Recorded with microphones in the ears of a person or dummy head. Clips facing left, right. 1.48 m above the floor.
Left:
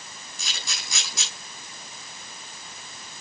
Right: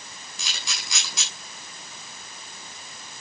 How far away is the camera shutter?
About 6.5 m.